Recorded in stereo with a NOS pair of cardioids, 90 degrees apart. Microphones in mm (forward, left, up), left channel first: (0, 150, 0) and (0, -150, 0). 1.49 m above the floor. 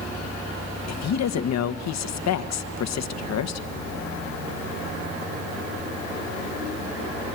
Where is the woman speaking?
60° left, 1.5 m.